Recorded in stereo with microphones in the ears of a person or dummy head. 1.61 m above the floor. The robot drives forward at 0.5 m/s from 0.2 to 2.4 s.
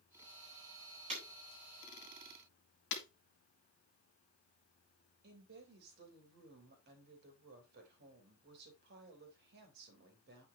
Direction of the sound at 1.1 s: 35° right (ahead or behind).